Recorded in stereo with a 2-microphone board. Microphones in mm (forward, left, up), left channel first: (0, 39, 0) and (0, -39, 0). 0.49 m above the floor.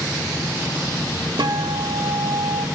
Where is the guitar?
70° right (ahead or behind), 0.8 m.